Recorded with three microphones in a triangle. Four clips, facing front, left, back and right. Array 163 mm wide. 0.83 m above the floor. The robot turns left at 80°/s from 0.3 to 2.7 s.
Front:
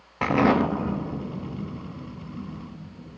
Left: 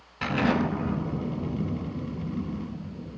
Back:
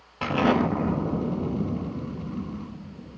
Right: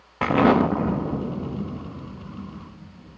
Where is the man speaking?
I don't hear a man speaking.